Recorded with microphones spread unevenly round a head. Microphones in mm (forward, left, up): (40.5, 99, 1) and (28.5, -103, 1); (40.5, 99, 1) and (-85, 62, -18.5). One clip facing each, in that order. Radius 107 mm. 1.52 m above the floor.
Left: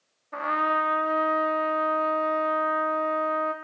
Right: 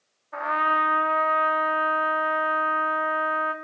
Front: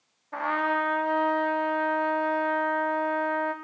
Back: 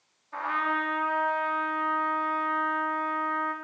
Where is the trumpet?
40° left, 3.5 m.